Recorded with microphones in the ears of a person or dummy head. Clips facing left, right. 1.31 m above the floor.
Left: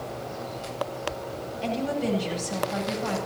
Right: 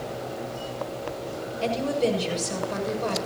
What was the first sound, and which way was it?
A woman speaking, 75° right (ahead or behind).